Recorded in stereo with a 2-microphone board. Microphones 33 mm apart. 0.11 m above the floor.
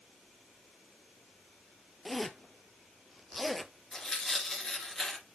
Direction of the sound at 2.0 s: Centre (ahead or behind).